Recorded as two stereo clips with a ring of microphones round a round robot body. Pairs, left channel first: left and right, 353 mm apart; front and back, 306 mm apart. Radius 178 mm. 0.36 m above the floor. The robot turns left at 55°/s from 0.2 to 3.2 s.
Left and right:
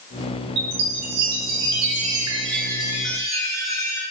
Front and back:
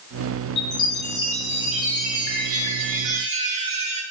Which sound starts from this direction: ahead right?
A chime, at 0.6 s.